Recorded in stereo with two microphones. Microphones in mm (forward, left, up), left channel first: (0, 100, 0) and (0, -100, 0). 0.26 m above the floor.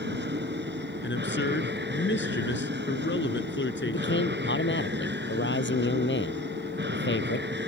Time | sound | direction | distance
0.0 | an aircraft | 60° right (ahead or behind) | ?
1.0 | a man speaking | 70° left (ahead or behind) | ?
3.9 | a man speaking | 70° left (ahead or behind) | ?